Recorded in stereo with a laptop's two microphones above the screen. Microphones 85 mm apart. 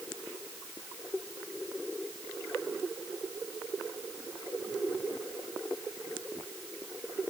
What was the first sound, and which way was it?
Only background noise.